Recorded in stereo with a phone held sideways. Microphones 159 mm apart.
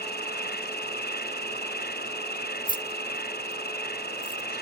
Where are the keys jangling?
55° left (ahead or behind).